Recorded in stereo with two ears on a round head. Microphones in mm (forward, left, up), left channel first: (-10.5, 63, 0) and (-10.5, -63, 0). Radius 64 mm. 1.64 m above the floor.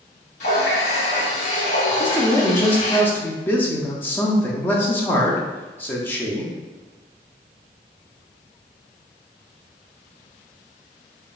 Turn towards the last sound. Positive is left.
turn(degrees=15)  # may be behind; listen again after turning